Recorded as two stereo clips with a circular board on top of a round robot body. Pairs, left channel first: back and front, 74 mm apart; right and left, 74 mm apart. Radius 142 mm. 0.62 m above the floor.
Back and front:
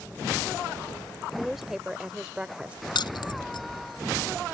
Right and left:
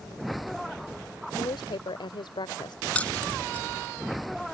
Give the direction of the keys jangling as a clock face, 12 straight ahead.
5 o'clock.